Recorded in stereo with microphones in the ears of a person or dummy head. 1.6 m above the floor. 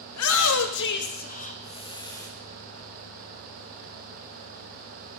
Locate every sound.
0.1 s a shout: 85° left, 1.2 m; by 2.3 s 15° left (ahead or behind), 1.4 m